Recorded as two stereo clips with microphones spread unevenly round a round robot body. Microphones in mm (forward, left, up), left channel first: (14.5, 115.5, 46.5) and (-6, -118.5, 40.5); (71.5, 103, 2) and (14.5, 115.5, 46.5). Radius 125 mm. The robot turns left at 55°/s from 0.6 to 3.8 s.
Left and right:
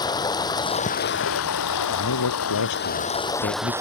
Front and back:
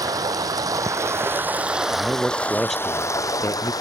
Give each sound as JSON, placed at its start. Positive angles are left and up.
{"t": 0.0, "sound": "running water", "azimuth_deg": 160}
{"t": 1.9, "sound": "a man speaking", "azimuth_deg": 120}